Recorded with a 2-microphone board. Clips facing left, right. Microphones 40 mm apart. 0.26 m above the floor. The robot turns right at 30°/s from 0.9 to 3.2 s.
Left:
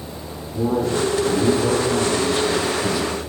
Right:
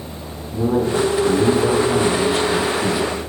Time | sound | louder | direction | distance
0.5 | a man speaking | right 2 dB | 130° right | 4 m